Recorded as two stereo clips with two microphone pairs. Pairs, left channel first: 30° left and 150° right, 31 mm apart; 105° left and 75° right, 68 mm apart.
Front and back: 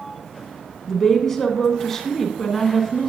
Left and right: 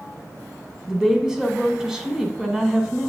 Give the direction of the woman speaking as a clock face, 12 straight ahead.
1 o'clock.